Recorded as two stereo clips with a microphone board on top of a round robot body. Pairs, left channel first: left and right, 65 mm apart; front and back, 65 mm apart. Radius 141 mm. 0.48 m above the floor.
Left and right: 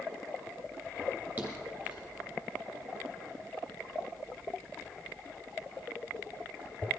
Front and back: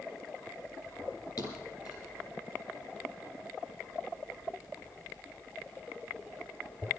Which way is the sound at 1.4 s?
20° right.